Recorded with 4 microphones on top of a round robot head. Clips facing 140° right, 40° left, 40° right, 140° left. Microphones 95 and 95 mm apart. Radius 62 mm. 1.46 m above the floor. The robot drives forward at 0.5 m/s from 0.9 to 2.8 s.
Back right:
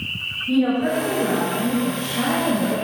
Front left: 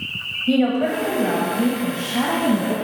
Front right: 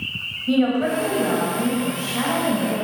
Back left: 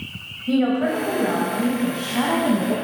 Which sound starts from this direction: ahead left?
A woman speaking, at 0.5 s.